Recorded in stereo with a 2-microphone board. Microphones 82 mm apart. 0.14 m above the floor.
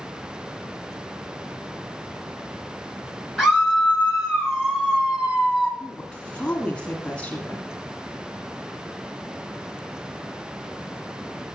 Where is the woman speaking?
15° left (ahead or behind), 1.6 m.